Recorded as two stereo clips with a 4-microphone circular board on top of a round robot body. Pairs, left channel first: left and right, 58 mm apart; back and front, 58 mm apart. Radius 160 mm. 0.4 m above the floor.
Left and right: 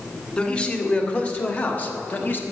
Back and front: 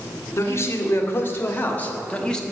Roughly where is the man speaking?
Behind left.